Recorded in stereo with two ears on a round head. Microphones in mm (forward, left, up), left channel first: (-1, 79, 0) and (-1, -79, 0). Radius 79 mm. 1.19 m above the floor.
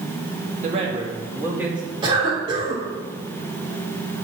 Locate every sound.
0.6 s a man speaking: 40° right (ahead or behind), 2.5 m; by 1.8 s 5° right (ahead or behind), 2.5 m
2.0 s a cough: 30° right (ahead or behind), 3.5 m